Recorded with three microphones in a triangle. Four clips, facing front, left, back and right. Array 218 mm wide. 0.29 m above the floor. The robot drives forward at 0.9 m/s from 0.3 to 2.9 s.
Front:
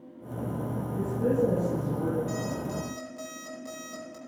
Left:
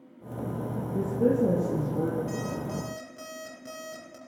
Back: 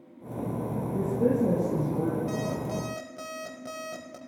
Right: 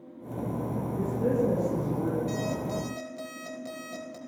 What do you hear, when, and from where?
0.9 s a woman speaking: 125° left, 8.5 m; by 2.2 s 130° left, 9 m
2.3 s an alarm clock: 170° right, 4.5 m